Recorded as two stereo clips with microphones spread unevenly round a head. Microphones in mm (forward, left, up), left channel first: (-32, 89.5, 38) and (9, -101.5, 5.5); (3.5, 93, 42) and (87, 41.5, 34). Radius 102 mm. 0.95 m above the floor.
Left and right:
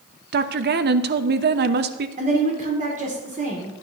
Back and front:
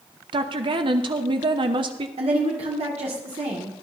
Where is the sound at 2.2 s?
25° right, 2 m.